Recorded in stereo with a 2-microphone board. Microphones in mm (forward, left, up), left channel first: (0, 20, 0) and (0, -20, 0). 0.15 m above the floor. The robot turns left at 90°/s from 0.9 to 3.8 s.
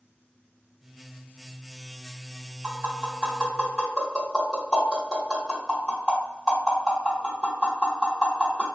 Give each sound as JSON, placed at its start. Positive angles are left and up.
{"t": 2.6, "sound": "tapping", "side_deg": -40, "distance_m": 1.8}